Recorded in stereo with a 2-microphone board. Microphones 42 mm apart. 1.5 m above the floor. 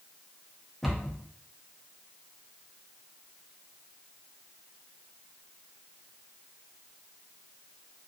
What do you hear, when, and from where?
0.8 s a cupboard door: 5° left (ahead or behind), 0.9 m